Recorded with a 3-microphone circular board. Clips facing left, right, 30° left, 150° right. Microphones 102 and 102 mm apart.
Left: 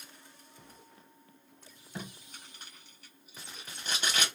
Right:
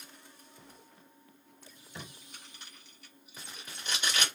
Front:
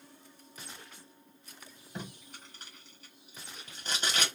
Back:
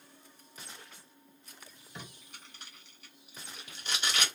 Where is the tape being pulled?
60° left, 1.6 m.